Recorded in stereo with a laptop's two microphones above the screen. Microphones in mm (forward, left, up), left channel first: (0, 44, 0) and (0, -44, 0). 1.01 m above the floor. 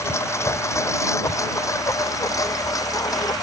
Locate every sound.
0.0 s a lawn mower: 30° left (ahead or behind); by 3.4 s 40° left (ahead or behind)